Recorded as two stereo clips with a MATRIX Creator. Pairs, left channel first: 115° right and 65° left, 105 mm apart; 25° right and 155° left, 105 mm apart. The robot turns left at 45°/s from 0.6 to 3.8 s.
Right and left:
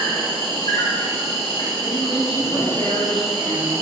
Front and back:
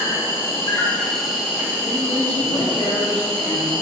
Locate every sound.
0.0 s an insect: 85° right, 1.0 m; by 3.8 s 130° left, 1.0 m
1.8 s a man speaking: 5° left, 1.6 m; by 3.7 s 75° right, 1.6 m